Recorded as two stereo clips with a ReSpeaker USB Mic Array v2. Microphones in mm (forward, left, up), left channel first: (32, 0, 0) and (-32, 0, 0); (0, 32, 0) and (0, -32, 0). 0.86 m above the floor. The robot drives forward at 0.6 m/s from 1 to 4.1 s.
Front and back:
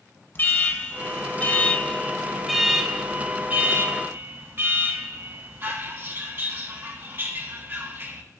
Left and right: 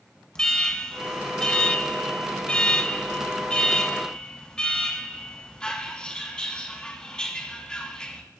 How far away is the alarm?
About 1.5 m.